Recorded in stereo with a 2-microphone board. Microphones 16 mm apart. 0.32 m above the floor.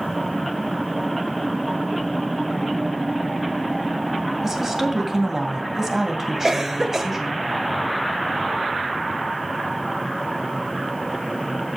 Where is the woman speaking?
25° right (ahead or behind), 2 m.